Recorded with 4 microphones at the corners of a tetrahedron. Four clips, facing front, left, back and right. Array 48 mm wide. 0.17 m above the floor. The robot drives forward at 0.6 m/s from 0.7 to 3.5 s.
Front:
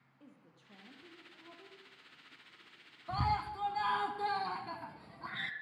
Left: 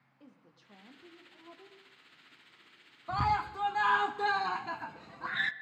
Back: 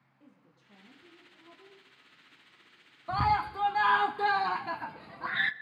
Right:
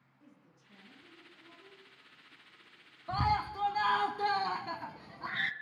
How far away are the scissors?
No scissors in this recording.